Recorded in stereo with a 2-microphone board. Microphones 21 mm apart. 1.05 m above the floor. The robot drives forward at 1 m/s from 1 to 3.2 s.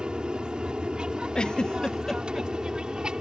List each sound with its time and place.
0.0 s an aircraft: 40° right (ahead or behind)
1.4 s a giggle: 40° left (ahead or behind); by 2.5 s 15° left (ahead or behind)